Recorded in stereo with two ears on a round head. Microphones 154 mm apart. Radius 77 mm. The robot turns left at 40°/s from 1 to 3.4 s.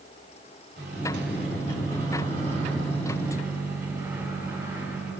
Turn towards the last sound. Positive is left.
turn(degrees=-170)